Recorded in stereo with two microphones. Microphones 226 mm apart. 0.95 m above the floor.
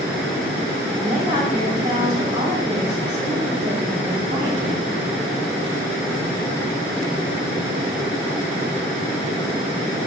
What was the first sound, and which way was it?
A woman speaking, 35° right (ahead or behind).